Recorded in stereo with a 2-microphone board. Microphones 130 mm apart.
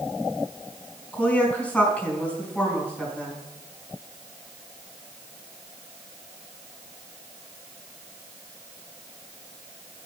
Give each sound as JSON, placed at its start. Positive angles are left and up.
{"t": 1.1, "sound": "a woman speaking", "side_deg": 10, "distance_m": 4.0}